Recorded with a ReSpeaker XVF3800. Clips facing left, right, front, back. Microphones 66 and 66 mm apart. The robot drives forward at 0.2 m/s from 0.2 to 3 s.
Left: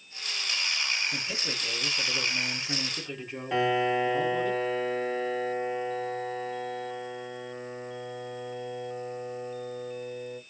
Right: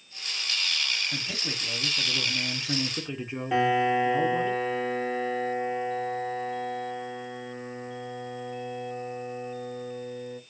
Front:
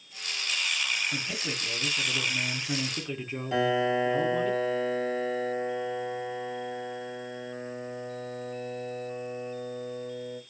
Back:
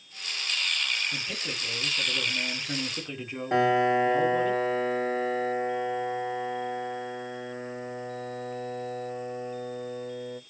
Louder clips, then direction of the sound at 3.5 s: Right 2 dB, back 3 dB; 175° right.